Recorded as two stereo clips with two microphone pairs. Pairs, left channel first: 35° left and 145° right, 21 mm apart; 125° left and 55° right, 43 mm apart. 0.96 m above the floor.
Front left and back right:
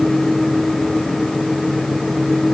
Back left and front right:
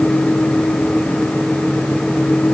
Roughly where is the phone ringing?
I don't hear a phone ringing.